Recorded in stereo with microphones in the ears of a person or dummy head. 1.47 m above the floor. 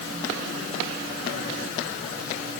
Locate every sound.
Only background noise.